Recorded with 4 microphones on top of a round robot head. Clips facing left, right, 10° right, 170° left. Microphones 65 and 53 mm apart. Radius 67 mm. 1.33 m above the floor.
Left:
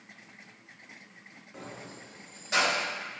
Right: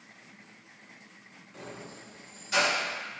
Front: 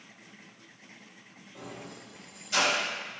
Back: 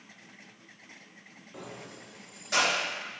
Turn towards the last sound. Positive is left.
turn(degrees=145)